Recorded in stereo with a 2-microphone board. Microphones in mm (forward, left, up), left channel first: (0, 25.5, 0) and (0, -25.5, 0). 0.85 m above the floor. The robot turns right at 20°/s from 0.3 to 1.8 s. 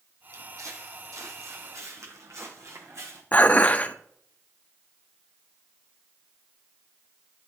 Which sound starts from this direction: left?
Dishes clattering, at 3.3 s.